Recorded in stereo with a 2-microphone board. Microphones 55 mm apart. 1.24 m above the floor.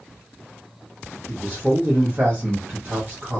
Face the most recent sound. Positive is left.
turn(degrees=-30)  # may be behind; listen again after turning